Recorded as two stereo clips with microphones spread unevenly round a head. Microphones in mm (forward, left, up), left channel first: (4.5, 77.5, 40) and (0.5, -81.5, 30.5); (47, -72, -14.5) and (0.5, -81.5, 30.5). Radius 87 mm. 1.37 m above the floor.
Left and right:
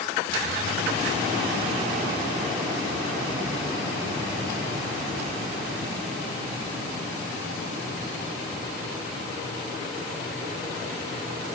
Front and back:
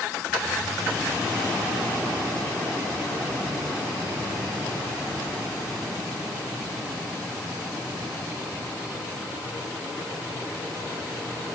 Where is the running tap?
No running tap in this recording.